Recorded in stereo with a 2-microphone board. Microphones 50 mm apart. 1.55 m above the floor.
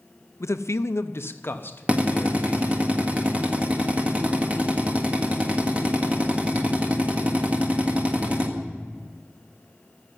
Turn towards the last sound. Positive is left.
turn(degrees=-30)  # may be behind; listen again after turning